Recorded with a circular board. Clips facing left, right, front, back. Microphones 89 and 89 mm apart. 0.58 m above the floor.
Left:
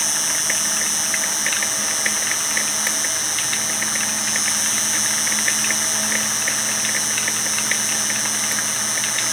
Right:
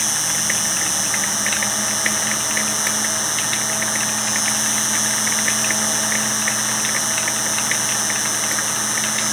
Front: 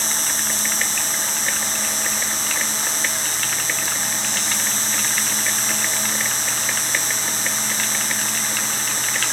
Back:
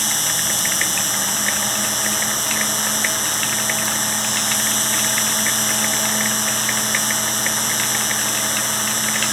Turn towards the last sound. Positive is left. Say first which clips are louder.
# right 1 dB, back 2 dB
turn(degrees=180)